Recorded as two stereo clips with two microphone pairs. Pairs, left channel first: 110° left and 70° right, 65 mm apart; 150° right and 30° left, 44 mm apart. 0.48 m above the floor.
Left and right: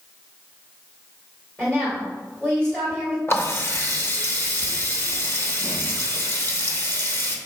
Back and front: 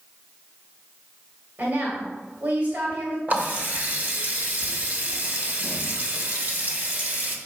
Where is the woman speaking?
35° left, 2.0 m.